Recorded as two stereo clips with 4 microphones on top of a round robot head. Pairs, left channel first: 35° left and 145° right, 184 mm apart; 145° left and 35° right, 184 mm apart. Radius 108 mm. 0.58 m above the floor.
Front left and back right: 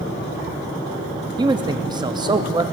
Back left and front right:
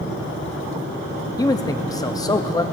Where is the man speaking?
170° right, 0.6 m.